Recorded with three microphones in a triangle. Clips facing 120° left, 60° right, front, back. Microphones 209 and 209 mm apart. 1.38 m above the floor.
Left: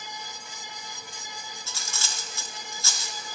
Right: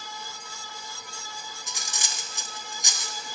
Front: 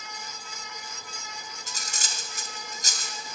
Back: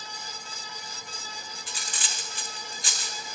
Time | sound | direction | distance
1.7 | cutlery clinking | 10° left | 0.6 m